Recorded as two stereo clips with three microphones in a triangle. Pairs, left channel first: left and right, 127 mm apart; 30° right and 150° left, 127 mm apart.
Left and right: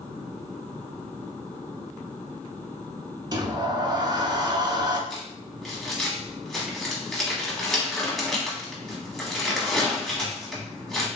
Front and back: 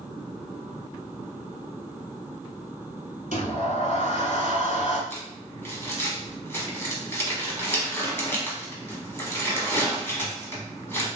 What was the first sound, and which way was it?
A sliding door, 35° right.